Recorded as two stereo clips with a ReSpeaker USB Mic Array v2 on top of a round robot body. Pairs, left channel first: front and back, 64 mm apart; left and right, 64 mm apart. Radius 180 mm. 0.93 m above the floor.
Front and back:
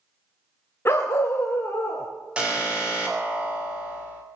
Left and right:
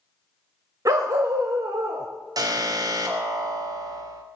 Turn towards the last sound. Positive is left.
turn(degrees=-105)